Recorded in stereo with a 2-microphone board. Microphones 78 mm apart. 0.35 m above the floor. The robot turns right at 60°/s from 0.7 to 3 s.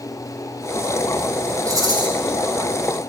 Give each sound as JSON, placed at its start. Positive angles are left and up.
{"t": 1.6, "sound": "a rattle", "side_deg": -45, "distance_m": 3.0}